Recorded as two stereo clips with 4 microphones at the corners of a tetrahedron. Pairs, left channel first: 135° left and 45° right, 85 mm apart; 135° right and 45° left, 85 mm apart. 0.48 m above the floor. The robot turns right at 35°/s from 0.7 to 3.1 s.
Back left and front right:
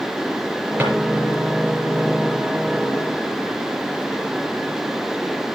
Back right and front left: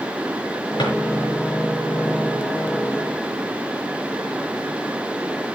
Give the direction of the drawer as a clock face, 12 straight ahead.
4 o'clock.